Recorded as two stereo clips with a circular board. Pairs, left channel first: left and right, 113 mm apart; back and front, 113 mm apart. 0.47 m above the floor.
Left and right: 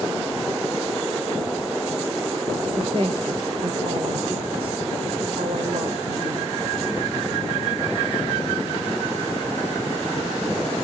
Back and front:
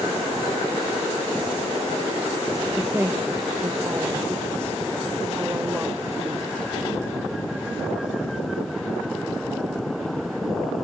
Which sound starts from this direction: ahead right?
A woman speaking, at 2.8 s.